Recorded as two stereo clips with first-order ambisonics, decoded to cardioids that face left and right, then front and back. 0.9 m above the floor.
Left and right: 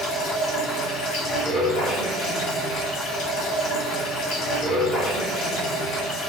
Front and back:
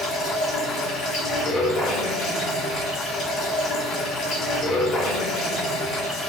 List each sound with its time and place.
0.0 s running water: 55° left, 2.0 m